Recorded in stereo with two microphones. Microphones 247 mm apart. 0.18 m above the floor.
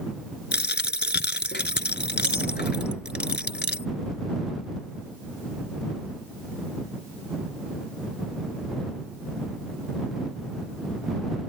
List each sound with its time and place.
0.5 s a dropped coin: 45° left (ahead or behind)